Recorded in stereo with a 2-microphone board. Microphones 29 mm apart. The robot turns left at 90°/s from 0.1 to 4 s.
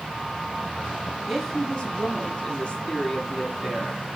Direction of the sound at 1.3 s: Straight behind.